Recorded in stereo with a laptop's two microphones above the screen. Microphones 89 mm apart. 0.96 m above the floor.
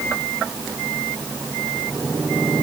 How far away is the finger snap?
I don't hear a finger snap.